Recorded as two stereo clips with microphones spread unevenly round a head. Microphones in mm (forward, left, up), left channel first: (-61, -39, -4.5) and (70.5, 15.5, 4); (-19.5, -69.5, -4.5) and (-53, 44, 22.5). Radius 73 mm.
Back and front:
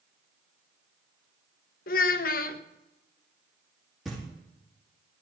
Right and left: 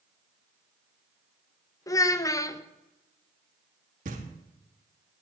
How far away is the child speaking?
About 0.9 m.